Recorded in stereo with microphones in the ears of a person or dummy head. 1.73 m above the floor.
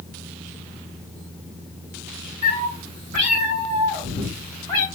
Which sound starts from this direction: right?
A cat meowing, at 2.4 s.